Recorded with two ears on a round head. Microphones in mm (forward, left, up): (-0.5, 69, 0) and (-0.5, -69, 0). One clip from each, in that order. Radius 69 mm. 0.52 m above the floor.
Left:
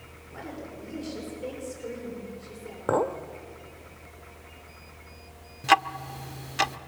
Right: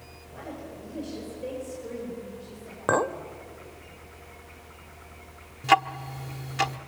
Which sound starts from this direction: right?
A clink, at 2.9 s.